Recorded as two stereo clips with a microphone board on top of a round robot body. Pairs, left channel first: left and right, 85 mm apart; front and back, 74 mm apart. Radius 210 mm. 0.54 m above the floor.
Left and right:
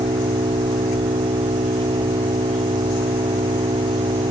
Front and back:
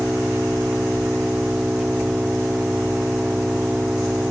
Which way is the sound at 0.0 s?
95° right.